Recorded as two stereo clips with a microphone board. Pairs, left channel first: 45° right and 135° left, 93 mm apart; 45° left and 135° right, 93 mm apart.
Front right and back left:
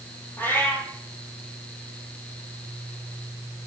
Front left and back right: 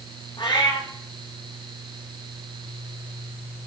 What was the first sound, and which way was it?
A cat meowing, 20° left.